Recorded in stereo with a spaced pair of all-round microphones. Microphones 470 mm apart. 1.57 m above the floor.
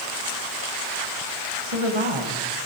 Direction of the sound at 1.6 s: 85° right.